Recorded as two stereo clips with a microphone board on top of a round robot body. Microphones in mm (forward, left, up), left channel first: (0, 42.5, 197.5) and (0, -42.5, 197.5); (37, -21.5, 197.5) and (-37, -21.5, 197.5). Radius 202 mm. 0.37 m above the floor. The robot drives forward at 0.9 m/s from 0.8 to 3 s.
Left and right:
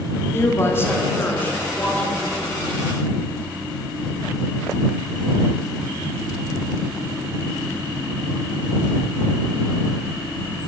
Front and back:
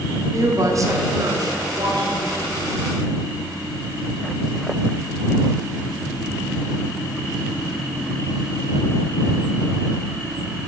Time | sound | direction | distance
0.3 | a woman speaking | 150° left | 1.7 m